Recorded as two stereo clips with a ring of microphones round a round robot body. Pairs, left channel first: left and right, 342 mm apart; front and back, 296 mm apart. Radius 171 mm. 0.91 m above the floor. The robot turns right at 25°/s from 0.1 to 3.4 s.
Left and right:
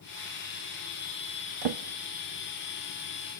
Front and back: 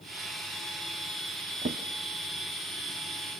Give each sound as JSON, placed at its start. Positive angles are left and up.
{"t": 1.6, "sound": "a drawer", "azimuth_deg": -110, "distance_m": 0.8}